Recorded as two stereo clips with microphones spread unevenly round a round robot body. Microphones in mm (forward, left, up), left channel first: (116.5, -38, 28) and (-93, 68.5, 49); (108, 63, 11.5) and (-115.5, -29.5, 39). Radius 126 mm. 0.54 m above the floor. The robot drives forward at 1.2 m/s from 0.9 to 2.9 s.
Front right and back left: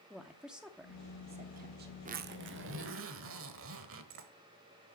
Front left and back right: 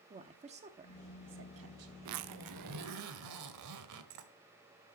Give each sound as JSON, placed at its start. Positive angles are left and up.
{"t": 0.1, "sound": "a woman speaking", "azimuth_deg": -115, "distance_m": 1.0}
{"t": 2.0, "sound": "a zipper", "azimuth_deg": -145, "distance_m": 0.6}